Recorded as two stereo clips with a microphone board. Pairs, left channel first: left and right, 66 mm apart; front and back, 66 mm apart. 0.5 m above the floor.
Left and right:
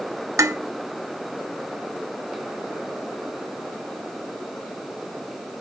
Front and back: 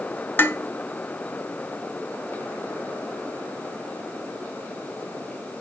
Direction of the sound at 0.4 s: 55° right.